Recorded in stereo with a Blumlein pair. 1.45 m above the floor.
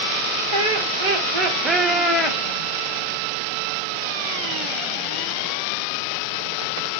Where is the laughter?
60° right, 1.3 m; by 2.4 s 25° left, 0.8 m.